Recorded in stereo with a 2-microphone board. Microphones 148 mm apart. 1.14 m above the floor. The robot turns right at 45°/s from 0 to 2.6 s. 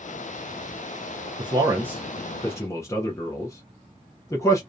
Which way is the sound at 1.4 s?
35° right (ahead or behind).